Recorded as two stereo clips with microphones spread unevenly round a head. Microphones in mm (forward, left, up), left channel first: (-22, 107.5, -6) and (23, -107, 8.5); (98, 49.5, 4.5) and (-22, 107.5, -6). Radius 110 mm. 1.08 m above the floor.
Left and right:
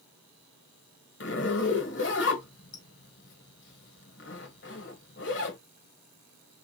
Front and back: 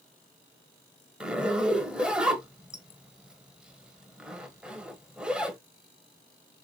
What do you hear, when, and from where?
1.2 s a zipper: 70° left, 1.3 m